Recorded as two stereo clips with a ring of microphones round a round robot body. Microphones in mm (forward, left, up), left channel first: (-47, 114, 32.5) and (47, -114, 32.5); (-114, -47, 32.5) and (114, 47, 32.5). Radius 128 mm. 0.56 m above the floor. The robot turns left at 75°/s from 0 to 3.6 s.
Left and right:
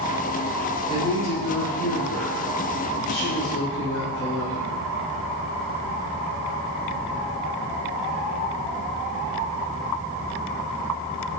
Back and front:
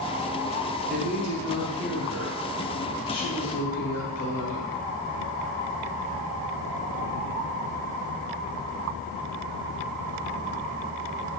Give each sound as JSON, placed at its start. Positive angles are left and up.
{"t": 0.9, "sound": "a woman speaking", "azimuth_deg": -10, "distance_m": 2.0}